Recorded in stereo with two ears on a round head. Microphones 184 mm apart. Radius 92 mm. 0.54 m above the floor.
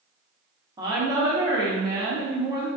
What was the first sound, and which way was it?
A woman speaking, 20° right (ahead or behind).